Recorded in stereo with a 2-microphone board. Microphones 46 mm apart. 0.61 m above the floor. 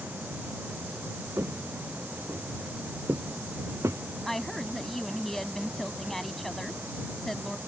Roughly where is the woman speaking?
Centre.